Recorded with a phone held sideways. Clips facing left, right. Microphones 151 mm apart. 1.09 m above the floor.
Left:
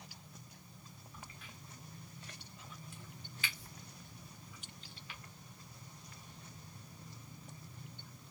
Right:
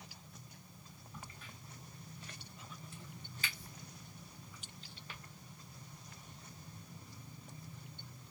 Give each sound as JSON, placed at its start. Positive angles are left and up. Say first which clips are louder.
{"t": 1.1, "sound": "a crack", "louder": "right 2 dB", "side_deg": -40, "distance_m": 1.4}